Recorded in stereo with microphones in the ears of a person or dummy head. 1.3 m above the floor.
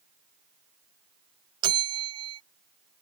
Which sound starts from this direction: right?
A bell, at 1.6 s.